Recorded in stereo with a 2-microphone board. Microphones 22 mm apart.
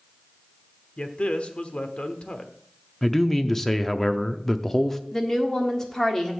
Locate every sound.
1.0 s a man speaking: 50° left (ahead or behind), 1.1 m
3.0 s a man speaking: 15° left (ahead or behind), 0.6 m
5.1 s a woman speaking: 25° left (ahead or behind), 1.4 m